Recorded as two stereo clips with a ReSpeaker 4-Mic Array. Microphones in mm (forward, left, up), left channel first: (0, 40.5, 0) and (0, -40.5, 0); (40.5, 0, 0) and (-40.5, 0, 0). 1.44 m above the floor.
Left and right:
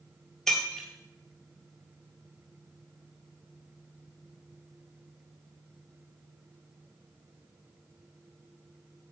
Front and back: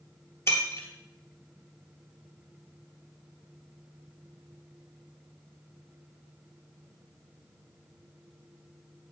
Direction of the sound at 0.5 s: 5° left.